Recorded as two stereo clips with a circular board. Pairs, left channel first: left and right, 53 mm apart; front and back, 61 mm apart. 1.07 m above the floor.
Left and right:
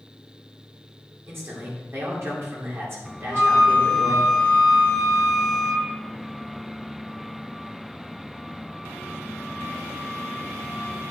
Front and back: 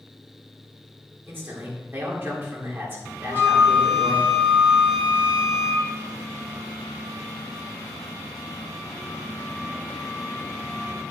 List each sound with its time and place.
1.3 s a man speaking: 125° right, 3.5 m
3.2 s a flute: 15° right, 5 m